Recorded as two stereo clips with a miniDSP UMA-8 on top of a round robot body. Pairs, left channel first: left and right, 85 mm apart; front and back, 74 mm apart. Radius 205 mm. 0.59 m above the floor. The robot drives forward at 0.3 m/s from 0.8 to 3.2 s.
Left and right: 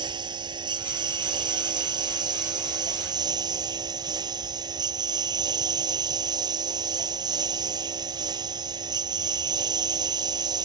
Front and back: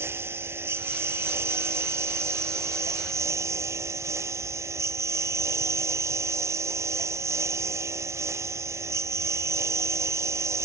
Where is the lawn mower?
125° right; by 10.7 s 130° right.